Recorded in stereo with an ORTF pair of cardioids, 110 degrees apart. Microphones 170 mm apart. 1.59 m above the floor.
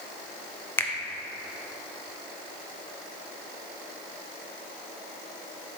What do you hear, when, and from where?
0.8 s a finger snap: 15° left, 0.8 m